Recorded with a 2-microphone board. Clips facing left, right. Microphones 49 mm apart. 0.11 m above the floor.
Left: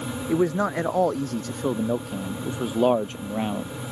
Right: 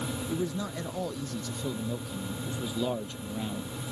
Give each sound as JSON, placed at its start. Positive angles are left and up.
{"t": 0.3, "sound": "a man speaking", "side_deg": 60}